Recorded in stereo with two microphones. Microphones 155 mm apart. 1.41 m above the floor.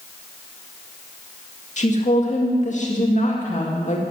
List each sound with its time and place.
1.8 s a woman speaking: 50° left (ahead or behind), 2 m